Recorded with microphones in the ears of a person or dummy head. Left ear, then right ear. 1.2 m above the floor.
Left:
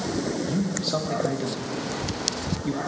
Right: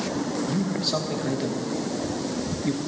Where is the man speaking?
10° right (ahead or behind), 1.2 m.